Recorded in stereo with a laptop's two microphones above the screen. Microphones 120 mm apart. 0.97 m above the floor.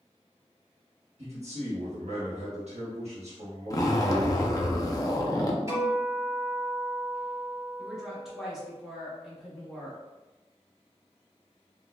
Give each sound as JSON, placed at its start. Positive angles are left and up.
{"t": 1.2, "sound": "a man speaking", "side_deg": -60, "distance_m": 1.4}
{"t": 3.7, "sound": "a zipper", "side_deg": 30, "distance_m": 0.7}
{"t": 5.7, "sound": "a guitar", "side_deg": -25, "distance_m": 1.6}
{"t": 7.8, "sound": "a woman speaking", "side_deg": 0, "distance_m": 1.2}